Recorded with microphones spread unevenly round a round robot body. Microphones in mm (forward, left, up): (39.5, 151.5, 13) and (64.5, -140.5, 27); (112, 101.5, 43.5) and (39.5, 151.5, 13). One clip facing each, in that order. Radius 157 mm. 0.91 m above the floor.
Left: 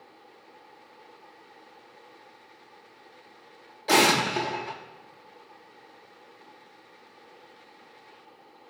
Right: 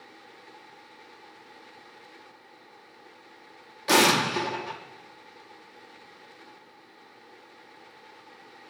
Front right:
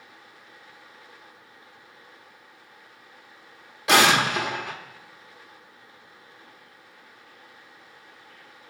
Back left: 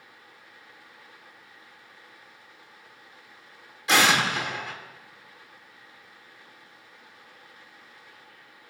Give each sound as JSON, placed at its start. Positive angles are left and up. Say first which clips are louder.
{"t": 3.9, "sound": "an explosion", "louder": "even, front right 3 dB", "azimuth_deg": -35, "distance_m": 1.2}